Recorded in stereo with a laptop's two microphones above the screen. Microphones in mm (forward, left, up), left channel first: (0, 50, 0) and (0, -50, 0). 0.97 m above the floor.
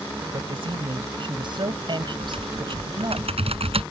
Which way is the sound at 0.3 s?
60° right (ahead or behind).